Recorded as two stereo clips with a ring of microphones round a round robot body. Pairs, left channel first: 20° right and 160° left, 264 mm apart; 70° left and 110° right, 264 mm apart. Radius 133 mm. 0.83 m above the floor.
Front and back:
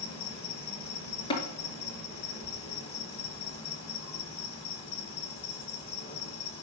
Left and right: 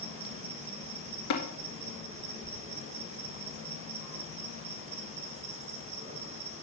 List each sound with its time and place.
0.0 s an insect: 70° right, 1.6 m
1.3 s tapping: 50° left, 2.0 m